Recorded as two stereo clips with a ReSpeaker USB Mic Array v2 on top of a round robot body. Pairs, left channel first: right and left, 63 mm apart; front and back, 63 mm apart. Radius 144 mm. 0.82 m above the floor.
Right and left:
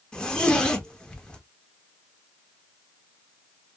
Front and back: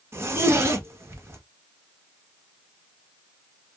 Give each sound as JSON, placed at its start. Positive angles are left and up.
{"t": 0.1, "sound": "a zipper", "azimuth_deg": -160, "distance_m": 1.1}